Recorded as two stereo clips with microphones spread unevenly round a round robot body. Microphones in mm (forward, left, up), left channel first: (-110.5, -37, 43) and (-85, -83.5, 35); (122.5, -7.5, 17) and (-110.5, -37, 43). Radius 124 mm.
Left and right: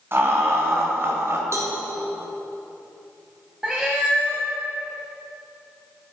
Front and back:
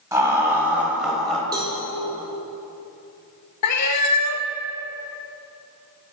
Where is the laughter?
95° right, 2.5 m; by 1.4 s 75° right, 2 m.